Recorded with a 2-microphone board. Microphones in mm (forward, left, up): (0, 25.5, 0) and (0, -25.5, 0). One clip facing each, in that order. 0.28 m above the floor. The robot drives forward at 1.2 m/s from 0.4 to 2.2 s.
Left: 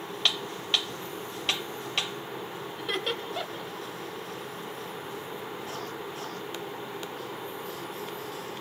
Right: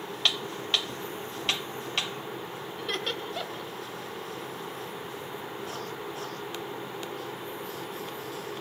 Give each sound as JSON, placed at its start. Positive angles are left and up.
{"t": 2.8, "sound": "laughter", "side_deg": 5, "distance_m": 1.5}